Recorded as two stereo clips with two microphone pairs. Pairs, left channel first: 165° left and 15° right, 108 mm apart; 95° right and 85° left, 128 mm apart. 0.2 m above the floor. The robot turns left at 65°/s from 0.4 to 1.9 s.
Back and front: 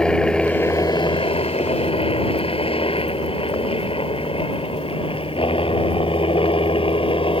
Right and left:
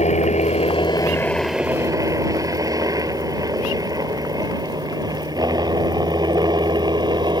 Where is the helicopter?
110° right; by 7.4 s 140° left.